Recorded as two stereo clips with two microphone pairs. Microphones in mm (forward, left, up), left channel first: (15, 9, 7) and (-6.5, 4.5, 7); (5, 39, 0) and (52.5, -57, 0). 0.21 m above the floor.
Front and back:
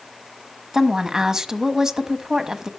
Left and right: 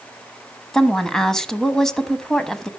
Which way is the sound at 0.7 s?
160° right.